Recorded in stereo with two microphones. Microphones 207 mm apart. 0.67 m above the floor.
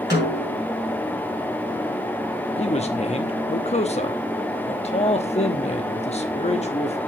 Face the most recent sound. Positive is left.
turn(degrees=30)  # may be behind; listen again after turning